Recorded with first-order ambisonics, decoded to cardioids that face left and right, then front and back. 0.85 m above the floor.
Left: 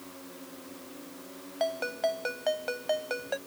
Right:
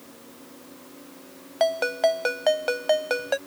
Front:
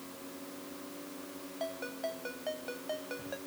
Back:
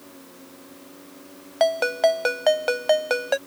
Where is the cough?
I don't hear a cough.